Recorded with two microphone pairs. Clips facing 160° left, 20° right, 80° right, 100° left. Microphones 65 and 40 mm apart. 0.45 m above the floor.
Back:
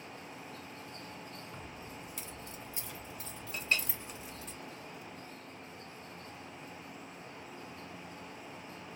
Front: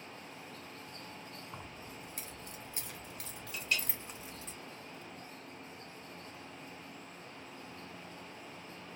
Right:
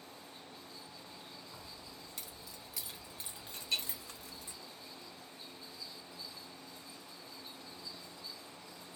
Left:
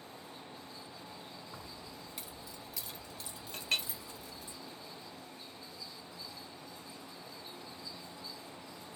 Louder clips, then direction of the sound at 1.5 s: Back 1 dB, left 3 dB; 35° left.